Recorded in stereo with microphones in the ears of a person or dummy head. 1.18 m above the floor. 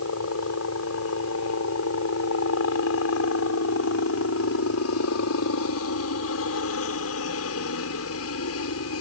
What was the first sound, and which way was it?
A helicopter, 70° left (ahead or behind).